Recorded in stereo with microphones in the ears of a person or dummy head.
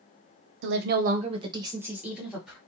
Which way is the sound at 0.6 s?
75° right (ahead or behind).